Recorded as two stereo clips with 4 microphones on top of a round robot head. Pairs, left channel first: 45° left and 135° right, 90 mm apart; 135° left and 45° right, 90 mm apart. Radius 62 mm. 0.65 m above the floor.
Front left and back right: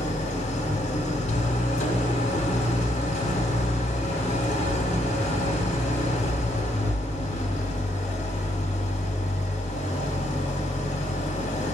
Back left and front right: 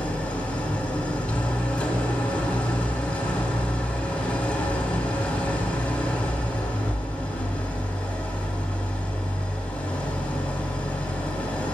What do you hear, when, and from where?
0.0 s an engine running: 60° left, 1.2 m